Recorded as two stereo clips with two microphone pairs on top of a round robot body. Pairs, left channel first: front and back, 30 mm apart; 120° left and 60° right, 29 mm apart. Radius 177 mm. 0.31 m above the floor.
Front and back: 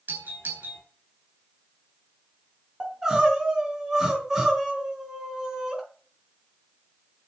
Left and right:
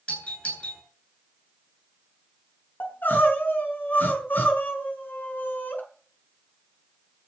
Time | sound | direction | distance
0.1 | a doorbell | 170° left | 9.5 m
2.8 | crying | 110° left | 5 m